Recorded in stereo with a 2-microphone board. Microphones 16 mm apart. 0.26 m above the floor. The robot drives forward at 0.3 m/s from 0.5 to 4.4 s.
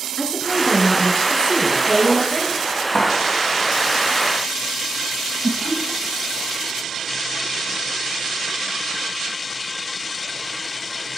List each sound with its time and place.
0.2 s a woman speaking: 65° left (ahead or behind), 4 m; by 2.6 s 55° left (ahead or behind), 4 m
2.9 s a clap: 40° left (ahead or behind), 2 m
5.4 s laughter: 15° left (ahead or behind), 1.1 m